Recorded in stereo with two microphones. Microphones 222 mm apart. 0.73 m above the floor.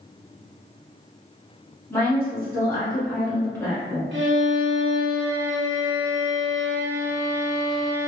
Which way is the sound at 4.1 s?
60° right (ahead or behind).